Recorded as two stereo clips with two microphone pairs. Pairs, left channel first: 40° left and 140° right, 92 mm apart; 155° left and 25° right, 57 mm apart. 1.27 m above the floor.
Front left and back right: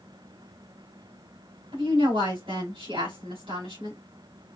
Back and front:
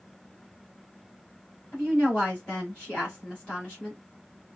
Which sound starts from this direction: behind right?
A woman speaking, at 1.7 s.